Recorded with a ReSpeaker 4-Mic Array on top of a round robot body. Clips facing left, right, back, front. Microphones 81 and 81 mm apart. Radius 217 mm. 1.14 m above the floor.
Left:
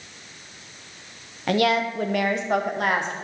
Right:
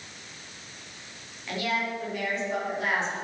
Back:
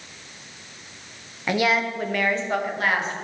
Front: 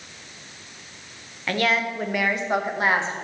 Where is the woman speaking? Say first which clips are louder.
Left 9 dB, back 1 dB; 105° left, 1.2 m; by 3.1 s 60° left, 1.8 m.